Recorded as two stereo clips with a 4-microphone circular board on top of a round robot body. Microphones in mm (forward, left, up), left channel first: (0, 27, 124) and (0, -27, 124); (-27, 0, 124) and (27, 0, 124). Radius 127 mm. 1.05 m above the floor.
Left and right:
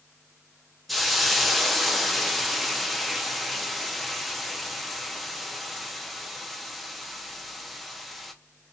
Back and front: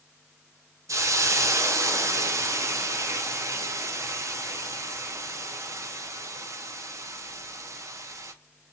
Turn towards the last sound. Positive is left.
turn(degrees=0)